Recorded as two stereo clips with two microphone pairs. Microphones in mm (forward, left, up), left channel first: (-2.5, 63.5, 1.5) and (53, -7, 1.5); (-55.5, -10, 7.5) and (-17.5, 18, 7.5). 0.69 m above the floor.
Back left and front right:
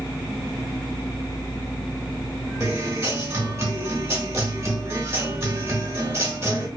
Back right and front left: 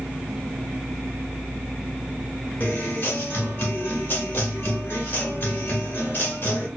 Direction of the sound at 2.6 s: 110° right.